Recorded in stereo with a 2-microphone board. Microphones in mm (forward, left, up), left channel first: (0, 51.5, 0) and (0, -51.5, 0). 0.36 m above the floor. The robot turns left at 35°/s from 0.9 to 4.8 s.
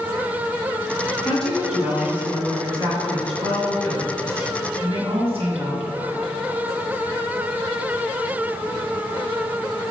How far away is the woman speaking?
About 2.5 m.